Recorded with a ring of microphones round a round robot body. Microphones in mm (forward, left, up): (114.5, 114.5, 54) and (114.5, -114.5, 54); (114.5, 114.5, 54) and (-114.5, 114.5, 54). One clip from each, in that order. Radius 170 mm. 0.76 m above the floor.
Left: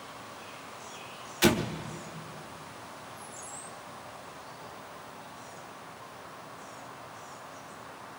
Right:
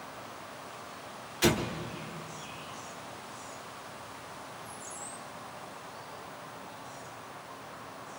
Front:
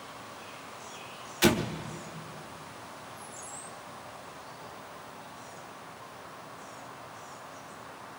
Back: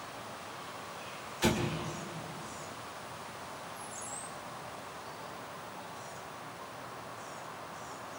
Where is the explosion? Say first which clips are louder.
Left 2 dB, front 6 dB; 30° left, 0.8 m.